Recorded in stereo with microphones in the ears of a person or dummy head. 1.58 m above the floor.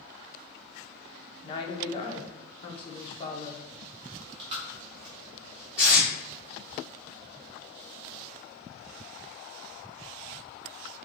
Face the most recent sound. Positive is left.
turn(degrees=-10)  # may be behind; listen again after turning